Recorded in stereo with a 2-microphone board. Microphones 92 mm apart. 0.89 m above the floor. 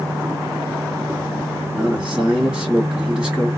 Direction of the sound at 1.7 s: 10° right (ahead or behind).